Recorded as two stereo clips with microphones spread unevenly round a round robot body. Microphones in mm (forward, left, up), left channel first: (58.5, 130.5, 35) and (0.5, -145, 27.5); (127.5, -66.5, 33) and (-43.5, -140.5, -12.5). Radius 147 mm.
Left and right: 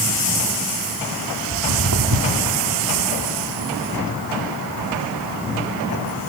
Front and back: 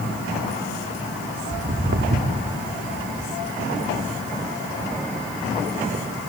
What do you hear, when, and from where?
1.5 s footsteps: 140° right, 2.5 m; by 6.3 s 105° right, 4.5 m